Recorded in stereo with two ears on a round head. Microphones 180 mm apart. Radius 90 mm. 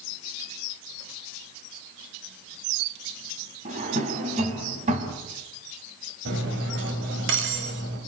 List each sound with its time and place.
3.6 s a drawer: 35° right (ahead or behind), 4 m
6.2 s cutlery clinking: 65° right (ahead or behind), 5.5 m